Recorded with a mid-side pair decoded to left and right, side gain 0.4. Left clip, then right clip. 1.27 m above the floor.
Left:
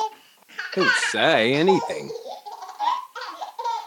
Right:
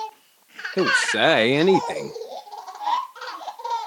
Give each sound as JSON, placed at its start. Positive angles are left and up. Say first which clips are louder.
{"t": 0.8, "sound": "a man speaking", "louder": "even", "azimuth_deg": -10}